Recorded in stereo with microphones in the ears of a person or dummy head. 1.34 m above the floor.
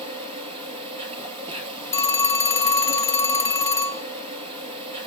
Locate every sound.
0.0 s an insect: 25° right (ahead or behind), 3.5 m
1.9 s a phone ringing: 15° left (ahead or behind), 1.0 m